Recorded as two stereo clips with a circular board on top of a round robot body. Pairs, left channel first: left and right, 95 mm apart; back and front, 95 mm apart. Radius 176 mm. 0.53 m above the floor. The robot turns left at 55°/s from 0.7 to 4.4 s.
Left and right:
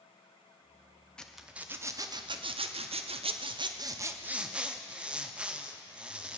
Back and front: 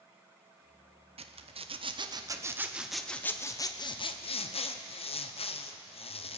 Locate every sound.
1.2 s a zipper: 10° left, 0.7 m; by 6.4 s 170° right, 0.7 m